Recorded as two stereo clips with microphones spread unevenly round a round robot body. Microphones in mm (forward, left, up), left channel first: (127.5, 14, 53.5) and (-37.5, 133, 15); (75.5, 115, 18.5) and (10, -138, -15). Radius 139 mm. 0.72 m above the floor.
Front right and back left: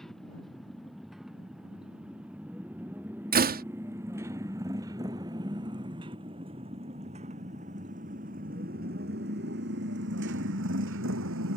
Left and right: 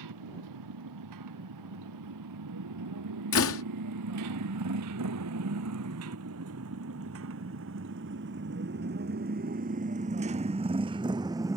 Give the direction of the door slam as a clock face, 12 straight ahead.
8 o'clock.